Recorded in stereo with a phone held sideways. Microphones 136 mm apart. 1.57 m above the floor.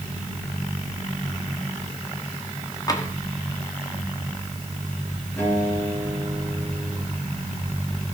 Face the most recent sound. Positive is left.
turn(degrees=25)  # may be behind; listen again after turning